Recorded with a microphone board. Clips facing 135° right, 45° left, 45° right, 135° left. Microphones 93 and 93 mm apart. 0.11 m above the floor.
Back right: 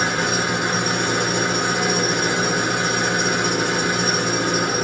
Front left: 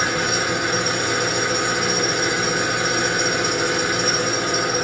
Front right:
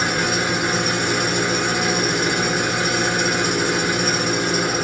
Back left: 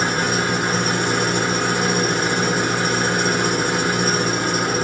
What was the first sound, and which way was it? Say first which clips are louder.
An engine running: back right 1 dB, back left 1 dB; straight behind.